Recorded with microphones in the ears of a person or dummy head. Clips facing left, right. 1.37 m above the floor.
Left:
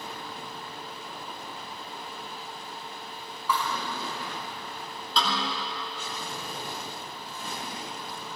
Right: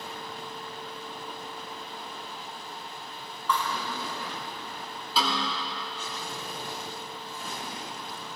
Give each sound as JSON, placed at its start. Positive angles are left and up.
{"t": 3.5, "sound": "a thud", "side_deg": 10, "distance_m": 5.5}
{"t": 5.2, "sound": "a snare drum", "side_deg": -5, "distance_m": 4.5}